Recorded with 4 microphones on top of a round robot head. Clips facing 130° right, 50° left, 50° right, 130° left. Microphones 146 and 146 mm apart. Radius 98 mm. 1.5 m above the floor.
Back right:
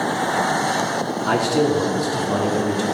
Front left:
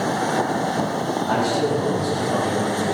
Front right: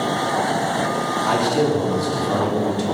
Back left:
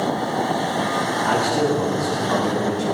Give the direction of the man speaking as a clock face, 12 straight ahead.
4 o'clock.